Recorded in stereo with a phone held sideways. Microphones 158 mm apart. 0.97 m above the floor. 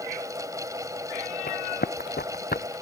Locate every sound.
0.0 s a fan: 20° right (ahead or behind)
1.5 s running footsteps: 80° left; by 2.7 s 75° left (ahead or behind)